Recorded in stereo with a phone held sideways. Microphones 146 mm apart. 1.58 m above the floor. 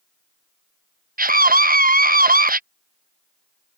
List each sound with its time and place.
1.2 s a scream: 80° right